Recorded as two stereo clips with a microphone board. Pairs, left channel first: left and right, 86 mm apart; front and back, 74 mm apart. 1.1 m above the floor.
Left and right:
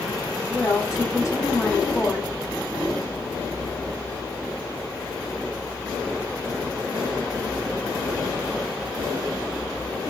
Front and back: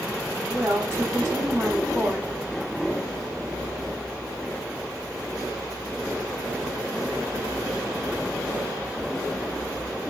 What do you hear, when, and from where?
0.5 s a woman speaking: 135° left, 1.3 m